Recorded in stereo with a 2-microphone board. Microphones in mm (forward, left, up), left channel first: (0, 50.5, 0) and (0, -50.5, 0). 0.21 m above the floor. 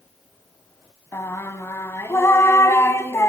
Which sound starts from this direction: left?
Singing, at 1.1 s.